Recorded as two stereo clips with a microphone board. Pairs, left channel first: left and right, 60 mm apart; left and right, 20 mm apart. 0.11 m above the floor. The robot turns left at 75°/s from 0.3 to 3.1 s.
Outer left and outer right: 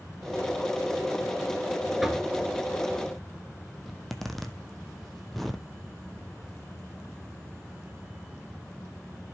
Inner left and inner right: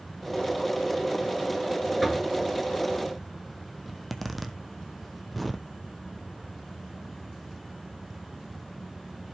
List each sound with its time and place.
2.0 s knocking: 5° right (ahead or behind), 1.3 m; by 2.3 s 15° right (ahead or behind), 1.3 m
3.9 s a zipper: 5° left (ahead or behind), 1.2 m